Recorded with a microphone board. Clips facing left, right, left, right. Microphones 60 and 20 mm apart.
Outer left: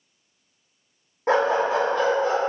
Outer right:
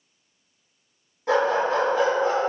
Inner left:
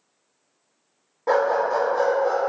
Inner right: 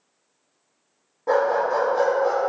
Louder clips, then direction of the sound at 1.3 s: Outer left 1 dB, even; 35° left (ahead or behind).